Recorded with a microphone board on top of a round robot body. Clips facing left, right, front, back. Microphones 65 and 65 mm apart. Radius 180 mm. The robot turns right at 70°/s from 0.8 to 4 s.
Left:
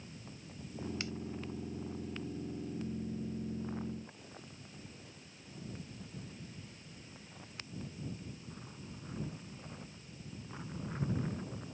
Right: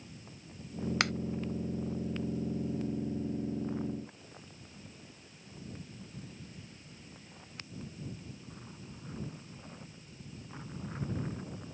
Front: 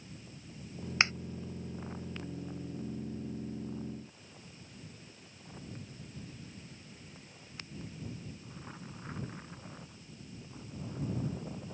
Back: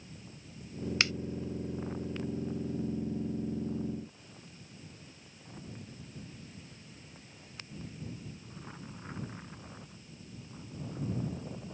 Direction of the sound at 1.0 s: 65° right.